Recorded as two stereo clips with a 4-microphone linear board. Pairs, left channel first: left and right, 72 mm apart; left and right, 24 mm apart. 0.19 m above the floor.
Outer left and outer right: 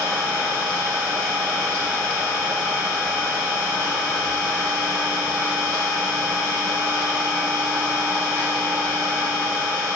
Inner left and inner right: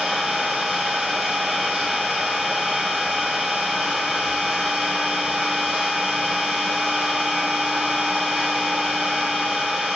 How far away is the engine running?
About 5.5 m.